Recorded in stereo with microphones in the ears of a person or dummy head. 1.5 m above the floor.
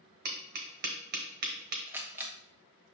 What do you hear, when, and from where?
0.2 s tapping: 45° right (ahead or behind), 1.1 m
1.9 s a camera shutter: 15° right (ahead or behind), 1.2 m